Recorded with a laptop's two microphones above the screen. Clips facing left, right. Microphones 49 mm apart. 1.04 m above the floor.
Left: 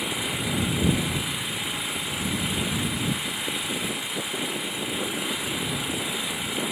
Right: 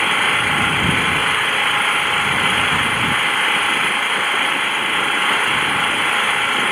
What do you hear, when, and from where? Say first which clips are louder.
0.0 s an engine running: right 13 dB; 55° right (ahead or behind)